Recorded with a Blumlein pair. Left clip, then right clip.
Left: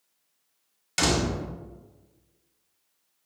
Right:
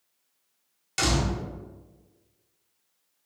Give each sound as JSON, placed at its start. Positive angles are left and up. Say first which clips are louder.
{"t": 1.0, "sound": "a door slam", "louder": "left 2 dB", "azimuth_deg": 10, "distance_m": 0.6}